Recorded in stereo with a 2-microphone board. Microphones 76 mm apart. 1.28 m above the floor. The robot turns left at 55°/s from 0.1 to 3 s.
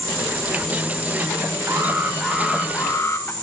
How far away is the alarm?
About 3 m.